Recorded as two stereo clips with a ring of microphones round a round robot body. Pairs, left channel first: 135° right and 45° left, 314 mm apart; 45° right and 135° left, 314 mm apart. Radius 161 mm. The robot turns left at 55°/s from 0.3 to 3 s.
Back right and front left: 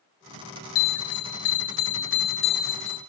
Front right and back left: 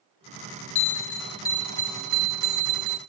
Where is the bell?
85° right, 1.5 m; by 3.0 s 150° left, 1.5 m.